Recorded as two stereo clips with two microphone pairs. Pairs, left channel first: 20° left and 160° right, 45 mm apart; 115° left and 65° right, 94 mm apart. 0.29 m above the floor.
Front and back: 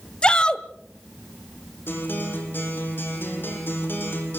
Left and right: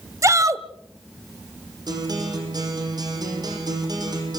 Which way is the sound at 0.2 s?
30° right.